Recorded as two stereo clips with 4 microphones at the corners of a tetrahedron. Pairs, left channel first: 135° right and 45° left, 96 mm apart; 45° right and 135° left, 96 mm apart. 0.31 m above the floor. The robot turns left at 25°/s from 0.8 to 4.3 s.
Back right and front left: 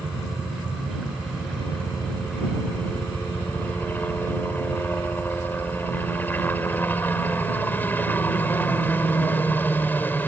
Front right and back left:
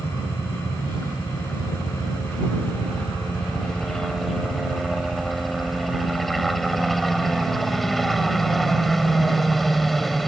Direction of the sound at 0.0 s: 45° right.